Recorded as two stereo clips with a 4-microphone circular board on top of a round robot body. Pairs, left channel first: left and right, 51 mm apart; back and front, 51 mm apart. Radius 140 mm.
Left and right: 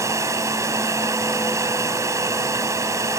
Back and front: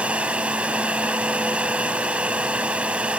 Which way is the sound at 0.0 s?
70° right.